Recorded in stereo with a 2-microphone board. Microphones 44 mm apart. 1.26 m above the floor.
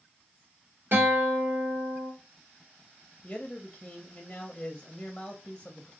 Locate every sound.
0.9 s a guitar: 50° right (ahead or behind), 1.5 m
3.2 s a man speaking: 25° left (ahead or behind), 0.5 m